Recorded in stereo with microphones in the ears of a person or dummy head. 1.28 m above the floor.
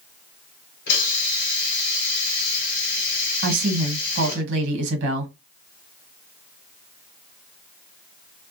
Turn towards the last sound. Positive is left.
turn(degrees=-65)  # may be behind; listen again after turning